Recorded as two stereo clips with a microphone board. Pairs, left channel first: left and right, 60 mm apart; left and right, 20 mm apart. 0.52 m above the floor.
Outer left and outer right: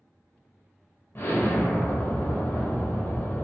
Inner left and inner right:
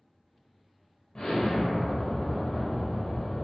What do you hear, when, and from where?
1.1 s an explosion: 40° left (ahead or behind), 0.6 m